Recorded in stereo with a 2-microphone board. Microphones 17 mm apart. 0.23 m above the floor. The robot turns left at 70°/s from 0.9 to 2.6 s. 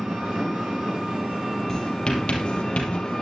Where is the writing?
20° left (ahead or behind), 3 m; by 3.0 s 80° left, 3 m.